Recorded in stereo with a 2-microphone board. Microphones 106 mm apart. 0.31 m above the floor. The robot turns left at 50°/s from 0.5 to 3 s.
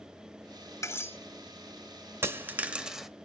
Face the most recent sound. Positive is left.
turn(degrees=-5)  # may be behind; listen again after turning